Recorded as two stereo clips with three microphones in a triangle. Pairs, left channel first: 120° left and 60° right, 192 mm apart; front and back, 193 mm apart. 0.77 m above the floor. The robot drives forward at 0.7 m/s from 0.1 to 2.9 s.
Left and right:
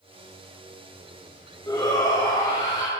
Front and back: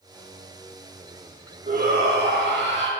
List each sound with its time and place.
1.7 s a shout: 175° right, 0.8 m; by 2.9 s straight behind, 1.5 m